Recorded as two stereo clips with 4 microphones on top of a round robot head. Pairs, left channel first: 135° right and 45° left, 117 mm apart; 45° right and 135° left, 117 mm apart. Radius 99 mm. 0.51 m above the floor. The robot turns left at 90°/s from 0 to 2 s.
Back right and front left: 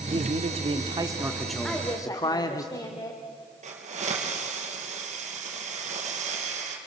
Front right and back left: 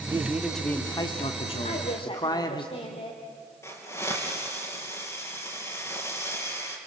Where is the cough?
I don't hear a cough.